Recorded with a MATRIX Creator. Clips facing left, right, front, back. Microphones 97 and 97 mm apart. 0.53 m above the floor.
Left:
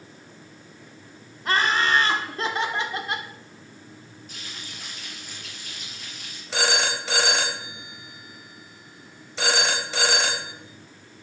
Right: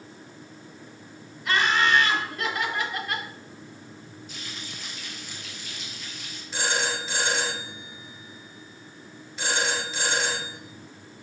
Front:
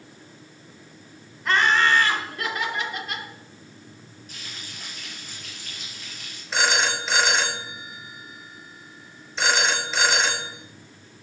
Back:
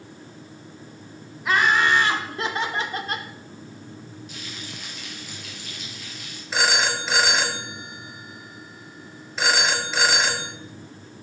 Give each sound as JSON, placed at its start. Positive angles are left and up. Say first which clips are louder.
{"t": 1.4, "sound": "laughter", "louder": "even, even", "azimuth_deg": 100, "distance_m": 1.6}
{"t": 4.3, "sound": "frying", "louder": "right 1 dB, back 4 dB", "azimuth_deg": 45, "distance_m": 5.5}
{"t": 6.5, "sound": "a phone ringing", "louder": "left 3 dB, even", "azimuth_deg": 90, "distance_m": 1.3}